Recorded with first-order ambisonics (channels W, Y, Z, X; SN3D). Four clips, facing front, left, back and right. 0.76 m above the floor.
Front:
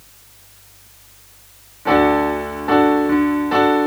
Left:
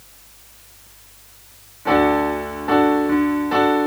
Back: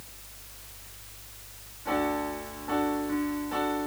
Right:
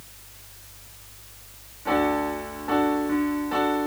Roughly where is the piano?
Ahead left.